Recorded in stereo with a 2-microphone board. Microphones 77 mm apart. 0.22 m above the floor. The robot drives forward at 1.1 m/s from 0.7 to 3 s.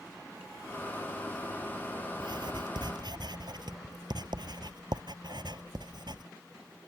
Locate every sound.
2.2 s writing: 75° right (ahead or behind); by 6.3 s 70° right (ahead or behind)